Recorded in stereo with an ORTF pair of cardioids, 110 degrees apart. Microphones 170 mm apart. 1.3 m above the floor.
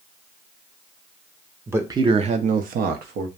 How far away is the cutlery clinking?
I don't hear cutlery clinking.